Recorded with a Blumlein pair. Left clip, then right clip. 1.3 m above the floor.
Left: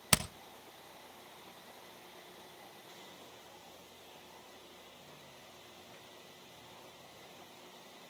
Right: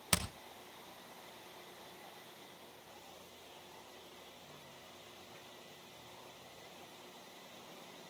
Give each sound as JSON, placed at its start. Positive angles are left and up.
{"t": 0.1, "sound": "hammering", "azimuth_deg": 15, "distance_m": 1.1}